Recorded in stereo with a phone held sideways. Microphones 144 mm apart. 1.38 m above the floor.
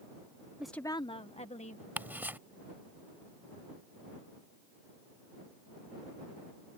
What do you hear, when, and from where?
0.6 s a woman speaking: 10° right (ahead or behind); by 1.9 s 55° left (ahead or behind)
2.0 s ticking: 15° right (ahead or behind)